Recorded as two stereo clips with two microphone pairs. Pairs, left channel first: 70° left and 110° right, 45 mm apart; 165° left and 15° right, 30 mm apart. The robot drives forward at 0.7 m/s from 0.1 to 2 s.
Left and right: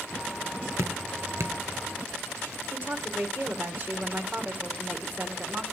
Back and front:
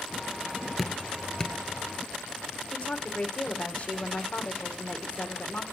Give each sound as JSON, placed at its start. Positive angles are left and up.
{"t": 0.8, "sound": "dripping", "azimuth_deg": -105, "distance_m": 0.8}
{"t": 2.7, "sound": "a woman speaking", "azimuth_deg": -150, "distance_m": 2.0}